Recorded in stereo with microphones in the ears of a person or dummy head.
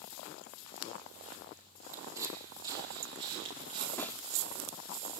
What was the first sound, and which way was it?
Footsteps, 15° right (ahead or behind).